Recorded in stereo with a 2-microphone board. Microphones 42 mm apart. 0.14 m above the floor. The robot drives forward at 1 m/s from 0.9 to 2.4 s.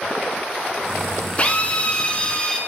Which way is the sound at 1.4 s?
35° left (ahead or behind).